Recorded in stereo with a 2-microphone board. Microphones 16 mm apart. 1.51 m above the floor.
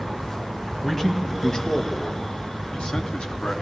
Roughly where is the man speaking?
Centre.